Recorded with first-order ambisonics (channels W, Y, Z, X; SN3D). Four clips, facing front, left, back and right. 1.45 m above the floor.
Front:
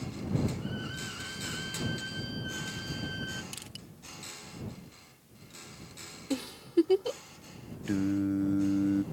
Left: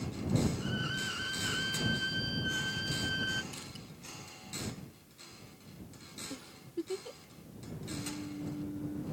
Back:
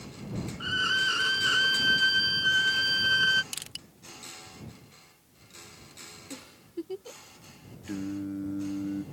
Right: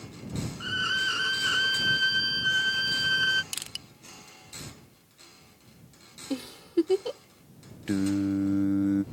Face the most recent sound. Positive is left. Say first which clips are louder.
# right 15 dB, front 5 dB
turn(degrees=-65)